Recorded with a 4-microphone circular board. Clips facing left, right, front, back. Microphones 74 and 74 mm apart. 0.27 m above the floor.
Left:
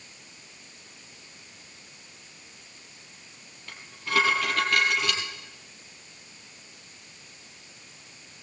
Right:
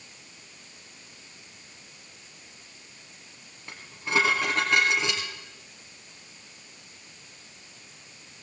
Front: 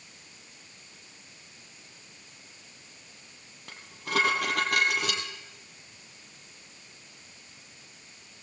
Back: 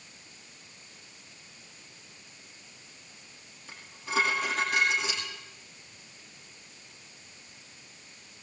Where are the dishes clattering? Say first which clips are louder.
Right 1 dB, front 2 dB; 25° right, 4.5 m.